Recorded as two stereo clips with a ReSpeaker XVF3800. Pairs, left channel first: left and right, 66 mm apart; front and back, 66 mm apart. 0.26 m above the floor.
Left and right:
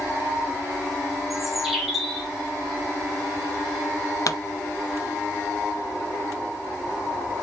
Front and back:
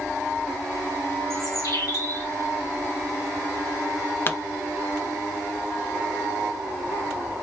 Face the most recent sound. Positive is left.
turn(degrees=55)